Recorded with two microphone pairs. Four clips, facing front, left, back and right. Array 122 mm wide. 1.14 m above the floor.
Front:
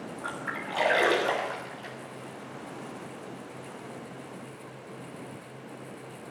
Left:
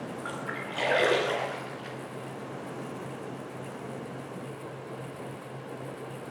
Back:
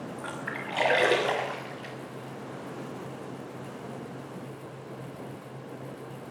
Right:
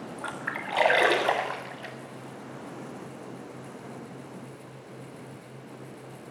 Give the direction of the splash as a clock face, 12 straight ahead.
3 o'clock.